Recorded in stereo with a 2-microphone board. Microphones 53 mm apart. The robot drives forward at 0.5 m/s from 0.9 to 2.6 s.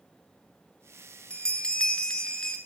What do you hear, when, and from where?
1.3 s a bell: 20° left (ahead or behind), 0.6 m; by 2.6 s 15° left (ahead or behind), 0.8 m